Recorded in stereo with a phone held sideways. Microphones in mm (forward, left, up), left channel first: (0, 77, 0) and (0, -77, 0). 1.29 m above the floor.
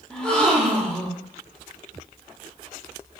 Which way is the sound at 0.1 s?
5° left (ahead or behind).